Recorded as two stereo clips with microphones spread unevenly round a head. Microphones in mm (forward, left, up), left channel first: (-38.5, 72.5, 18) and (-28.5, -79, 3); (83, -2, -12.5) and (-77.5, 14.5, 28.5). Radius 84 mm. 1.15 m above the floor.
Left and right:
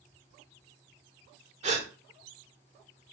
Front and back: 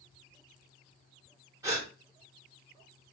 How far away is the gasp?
About 1.1 m.